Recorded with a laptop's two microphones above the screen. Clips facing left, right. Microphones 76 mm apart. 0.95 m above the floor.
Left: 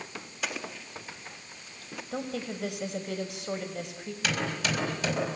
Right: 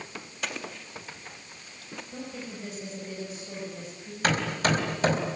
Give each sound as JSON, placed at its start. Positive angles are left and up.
{"t": 0.4, "sound": "an explosion", "side_deg": 0, "distance_m": 1.6}
{"t": 2.1, "sound": "a woman speaking", "side_deg": 80, "distance_m": 5.5}
{"t": 4.2, "sound": "hammering", "side_deg": -45, "distance_m": 4.5}